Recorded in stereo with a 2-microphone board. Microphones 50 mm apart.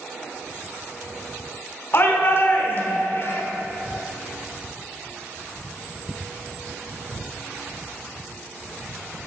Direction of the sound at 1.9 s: 50° left (ahead or behind).